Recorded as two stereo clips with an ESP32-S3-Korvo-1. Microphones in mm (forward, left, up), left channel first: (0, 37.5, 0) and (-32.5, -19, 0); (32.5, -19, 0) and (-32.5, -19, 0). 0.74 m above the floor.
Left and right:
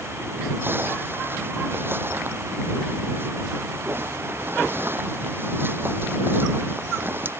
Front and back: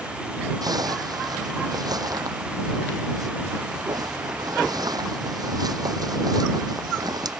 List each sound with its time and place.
0.6 s a zipper: 175° right